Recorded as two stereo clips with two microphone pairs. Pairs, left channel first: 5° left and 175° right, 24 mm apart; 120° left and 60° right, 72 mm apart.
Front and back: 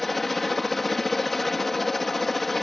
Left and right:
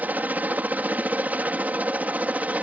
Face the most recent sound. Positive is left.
turn(degrees=-65)